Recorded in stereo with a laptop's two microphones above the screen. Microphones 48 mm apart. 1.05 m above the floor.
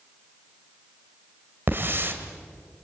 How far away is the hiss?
About 1.9 m.